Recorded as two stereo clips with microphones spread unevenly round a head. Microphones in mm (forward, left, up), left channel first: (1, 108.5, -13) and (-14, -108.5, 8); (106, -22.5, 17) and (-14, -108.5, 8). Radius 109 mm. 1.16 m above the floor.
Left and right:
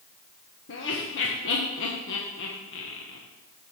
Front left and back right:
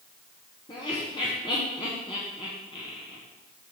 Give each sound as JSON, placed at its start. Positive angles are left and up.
{"t": 0.7, "sound": "laughter", "azimuth_deg": 100, "distance_m": 1.1}